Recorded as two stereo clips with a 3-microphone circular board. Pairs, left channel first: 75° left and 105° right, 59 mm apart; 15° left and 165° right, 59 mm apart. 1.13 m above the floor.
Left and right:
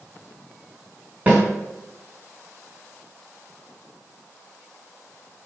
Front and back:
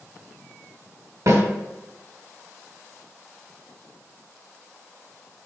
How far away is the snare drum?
About 2.5 m.